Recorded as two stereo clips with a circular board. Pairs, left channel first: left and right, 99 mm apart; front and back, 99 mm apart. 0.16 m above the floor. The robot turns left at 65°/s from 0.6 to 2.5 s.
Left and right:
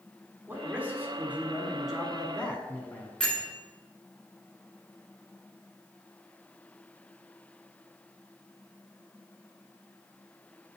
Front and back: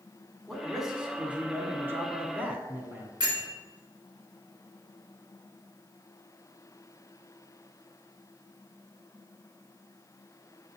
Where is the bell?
170° left, 2.0 m.